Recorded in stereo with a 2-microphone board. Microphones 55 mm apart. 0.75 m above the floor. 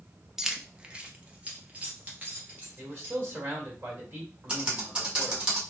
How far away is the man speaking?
About 2.5 m.